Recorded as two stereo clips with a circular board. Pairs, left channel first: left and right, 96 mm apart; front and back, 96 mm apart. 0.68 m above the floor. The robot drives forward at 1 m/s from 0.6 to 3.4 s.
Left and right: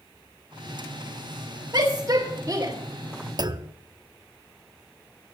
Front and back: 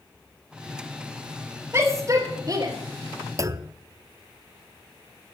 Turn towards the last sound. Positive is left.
turn(degrees=-130)